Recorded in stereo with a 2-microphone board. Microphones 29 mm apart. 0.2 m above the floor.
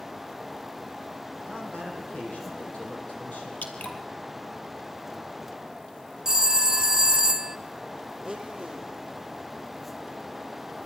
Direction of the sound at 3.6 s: 70° left (ahead or behind).